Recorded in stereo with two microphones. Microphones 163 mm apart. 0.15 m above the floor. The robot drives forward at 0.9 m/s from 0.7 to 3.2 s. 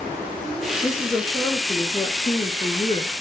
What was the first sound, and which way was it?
A woman speaking, 20° left (ahead or behind).